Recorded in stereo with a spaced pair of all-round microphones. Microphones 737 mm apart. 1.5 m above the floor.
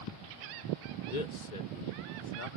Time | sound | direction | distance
1.1 | a man speaking | 85° left | ?